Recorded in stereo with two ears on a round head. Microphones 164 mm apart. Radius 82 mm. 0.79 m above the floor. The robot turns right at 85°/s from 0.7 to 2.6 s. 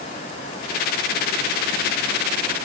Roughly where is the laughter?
No laughter in this recording.